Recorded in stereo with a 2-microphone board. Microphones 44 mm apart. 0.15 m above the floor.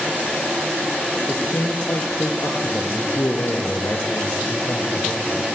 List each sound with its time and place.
1.3 s a man speaking: 70° left (ahead or behind), 3.5 m